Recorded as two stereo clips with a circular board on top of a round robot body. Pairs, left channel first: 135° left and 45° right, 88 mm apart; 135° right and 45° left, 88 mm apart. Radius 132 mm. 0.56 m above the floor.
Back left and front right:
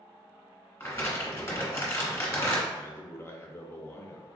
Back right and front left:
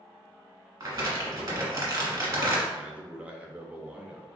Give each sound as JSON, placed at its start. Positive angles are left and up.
{"t": 0.8, "sound": "crumpling", "azimuth_deg": 80, "distance_m": 1.5}
{"t": 2.7, "sound": "a man speaking", "azimuth_deg": 105, "distance_m": 0.7}